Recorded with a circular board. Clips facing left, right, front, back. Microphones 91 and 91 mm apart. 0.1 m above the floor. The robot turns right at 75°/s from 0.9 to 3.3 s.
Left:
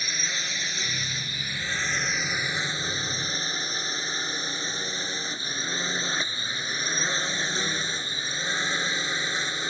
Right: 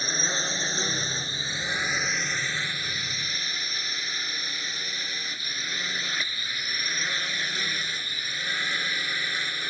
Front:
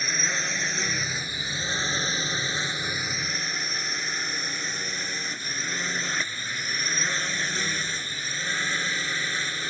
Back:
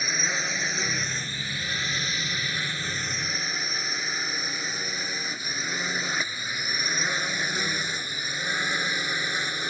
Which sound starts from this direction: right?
A drone, at 0.0 s.